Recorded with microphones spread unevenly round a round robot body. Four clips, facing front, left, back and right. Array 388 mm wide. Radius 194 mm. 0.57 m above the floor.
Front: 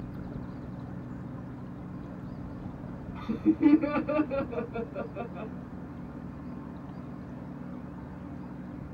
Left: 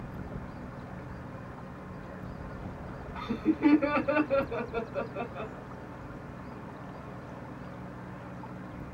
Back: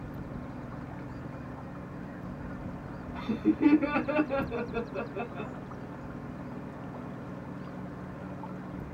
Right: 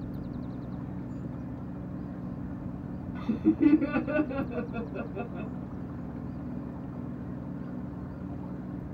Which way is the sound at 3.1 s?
80° right.